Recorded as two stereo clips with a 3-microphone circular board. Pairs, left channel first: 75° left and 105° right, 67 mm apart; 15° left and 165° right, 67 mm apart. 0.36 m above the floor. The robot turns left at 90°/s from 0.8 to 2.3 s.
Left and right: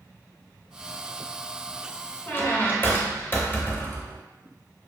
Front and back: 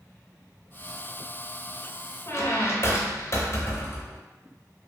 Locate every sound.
2.3 s a squeak: 35° left, 0.6 m; by 4.2 s 30° left, 0.6 m